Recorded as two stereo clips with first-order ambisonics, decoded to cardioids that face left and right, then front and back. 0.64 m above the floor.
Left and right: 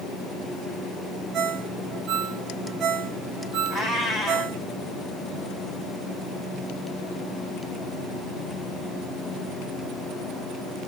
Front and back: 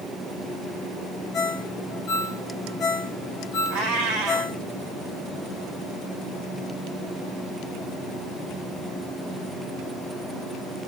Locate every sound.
1.3 s a ringtone: 40° right, 0.8 m
3.7 s a cat meowing: 150° left, 2.0 m